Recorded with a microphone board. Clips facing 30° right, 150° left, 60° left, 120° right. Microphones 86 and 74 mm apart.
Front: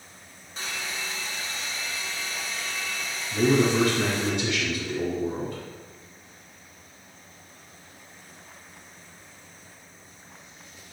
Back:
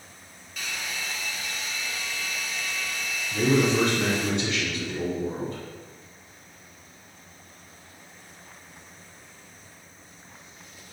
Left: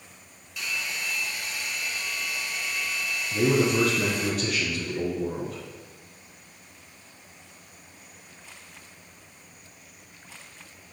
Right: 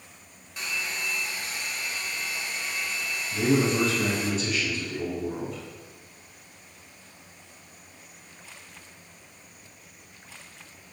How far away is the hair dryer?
About 0.9 m.